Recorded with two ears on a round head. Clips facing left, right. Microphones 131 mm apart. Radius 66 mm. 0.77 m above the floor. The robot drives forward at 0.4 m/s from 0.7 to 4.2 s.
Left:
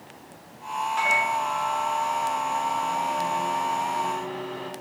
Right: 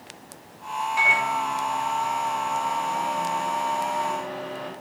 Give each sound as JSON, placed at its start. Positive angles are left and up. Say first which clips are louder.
{"t": 1.0, "sound": "a microwave", "louder": "even", "side_deg": -10, "distance_m": 1.5}